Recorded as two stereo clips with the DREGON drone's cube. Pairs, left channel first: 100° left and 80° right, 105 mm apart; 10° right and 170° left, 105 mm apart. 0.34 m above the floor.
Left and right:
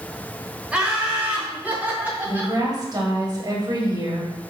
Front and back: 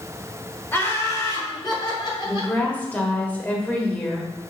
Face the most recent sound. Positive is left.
turn(degrees=-80)